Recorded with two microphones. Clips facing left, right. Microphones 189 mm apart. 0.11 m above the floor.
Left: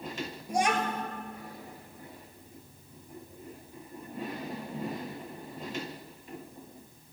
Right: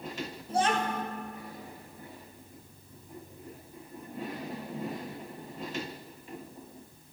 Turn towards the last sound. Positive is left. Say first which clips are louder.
# even
turn(degrees=15)  # may be behind; listen again after turning